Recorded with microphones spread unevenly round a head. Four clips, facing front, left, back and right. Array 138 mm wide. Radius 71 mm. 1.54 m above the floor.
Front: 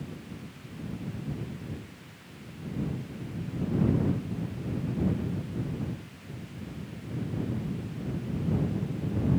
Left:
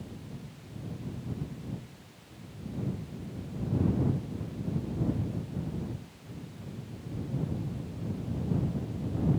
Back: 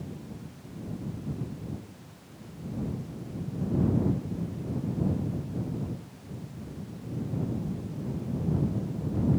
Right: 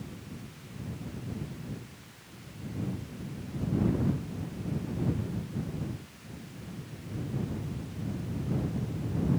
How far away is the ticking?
I don't hear ticking.